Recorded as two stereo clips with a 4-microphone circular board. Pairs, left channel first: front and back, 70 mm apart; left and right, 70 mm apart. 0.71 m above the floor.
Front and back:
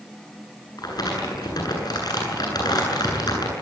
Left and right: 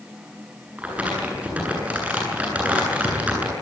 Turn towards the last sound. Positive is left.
turn(degrees=-20)